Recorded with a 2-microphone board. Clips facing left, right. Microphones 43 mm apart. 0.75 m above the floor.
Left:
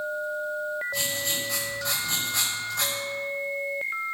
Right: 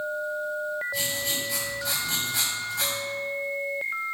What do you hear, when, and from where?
0.9 s writing: 70° left (ahead or behind), 4 m